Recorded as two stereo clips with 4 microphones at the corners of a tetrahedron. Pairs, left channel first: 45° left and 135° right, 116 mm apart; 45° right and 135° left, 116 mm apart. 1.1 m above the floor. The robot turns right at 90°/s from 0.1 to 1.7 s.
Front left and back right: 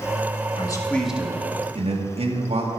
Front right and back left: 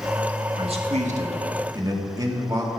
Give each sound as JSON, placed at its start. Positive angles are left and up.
{"t": 0.5, "sound": "a man speaking", "azimuth_deg": 85, "distance_m": 1.9}